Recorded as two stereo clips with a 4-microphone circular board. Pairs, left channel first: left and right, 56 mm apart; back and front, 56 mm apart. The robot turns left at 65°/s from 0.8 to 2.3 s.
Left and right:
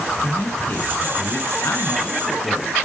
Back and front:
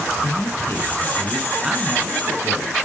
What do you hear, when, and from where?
0.2 s a man speaking: 135° left, 2.5 m; by 2.8 s 40° left, 2.5 m